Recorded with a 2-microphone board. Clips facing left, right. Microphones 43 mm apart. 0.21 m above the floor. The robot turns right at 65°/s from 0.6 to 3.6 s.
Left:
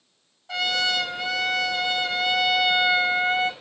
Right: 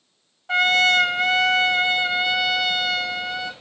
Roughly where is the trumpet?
Behind right.